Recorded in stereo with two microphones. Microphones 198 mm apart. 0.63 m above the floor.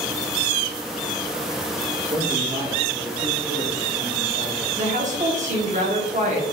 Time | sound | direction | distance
2.1 | a man speaking | 30° right (ahead or behind) | 1.4 m
4.8 | a woman speaking | 40° right (ahead or behind) | 1.3 m